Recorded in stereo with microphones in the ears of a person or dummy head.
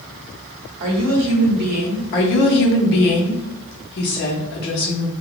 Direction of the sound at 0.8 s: 80° right.